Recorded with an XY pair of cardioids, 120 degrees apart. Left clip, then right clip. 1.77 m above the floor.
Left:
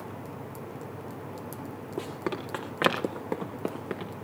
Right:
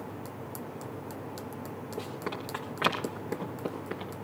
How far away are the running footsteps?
About 6 m.